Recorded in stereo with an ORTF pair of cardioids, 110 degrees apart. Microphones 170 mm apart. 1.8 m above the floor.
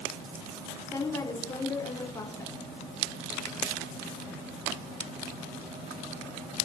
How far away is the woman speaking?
About 5 m.